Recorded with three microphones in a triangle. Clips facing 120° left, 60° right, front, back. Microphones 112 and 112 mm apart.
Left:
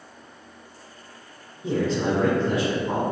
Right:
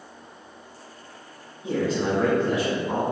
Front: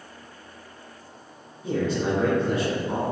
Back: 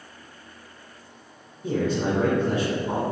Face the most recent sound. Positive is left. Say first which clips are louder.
# left 1 dB, back 1 dB
turn(degrees=165)